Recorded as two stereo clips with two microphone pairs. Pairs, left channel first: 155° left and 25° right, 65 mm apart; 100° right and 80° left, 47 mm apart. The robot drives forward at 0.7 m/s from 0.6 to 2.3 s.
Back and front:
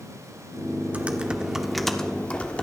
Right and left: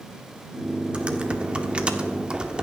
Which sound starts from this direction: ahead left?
Typing on a keyboard, at 0.9 s.